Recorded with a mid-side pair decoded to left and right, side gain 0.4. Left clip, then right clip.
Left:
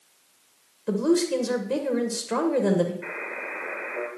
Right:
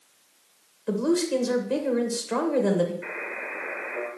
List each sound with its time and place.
0.9 s a woman speaking: 20° left, 2.5 m
3.0 s a buzzer: 5° left, 3 m